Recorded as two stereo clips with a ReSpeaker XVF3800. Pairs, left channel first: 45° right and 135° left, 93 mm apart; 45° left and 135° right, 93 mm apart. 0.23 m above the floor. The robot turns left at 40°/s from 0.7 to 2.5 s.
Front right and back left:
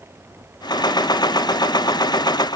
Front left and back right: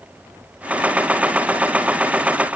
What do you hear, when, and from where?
Only background noise.